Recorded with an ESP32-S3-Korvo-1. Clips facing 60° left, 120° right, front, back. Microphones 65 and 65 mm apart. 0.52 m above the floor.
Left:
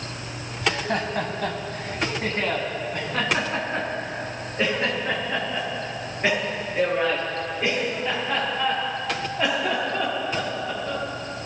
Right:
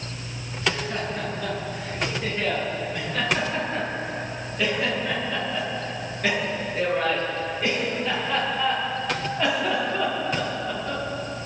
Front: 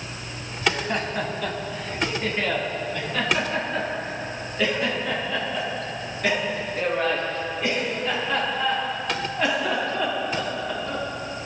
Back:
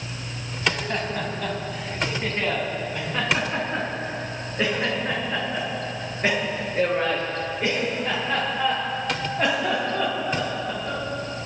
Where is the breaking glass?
No breaking glass in this recording.